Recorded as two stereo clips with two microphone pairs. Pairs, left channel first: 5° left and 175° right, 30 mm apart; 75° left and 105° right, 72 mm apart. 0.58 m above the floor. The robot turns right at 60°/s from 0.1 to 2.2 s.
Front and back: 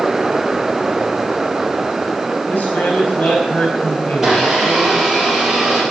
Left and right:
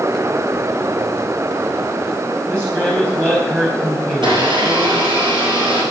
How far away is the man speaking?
About 4 m.